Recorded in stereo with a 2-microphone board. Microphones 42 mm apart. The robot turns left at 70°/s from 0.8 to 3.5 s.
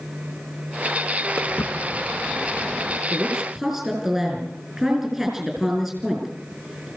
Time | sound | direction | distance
1.4 | footsteps | 75° left (ahead or behind) | 2 m
3.1 | a woman speaking | 45° right (ahead or behind) | 5.5 m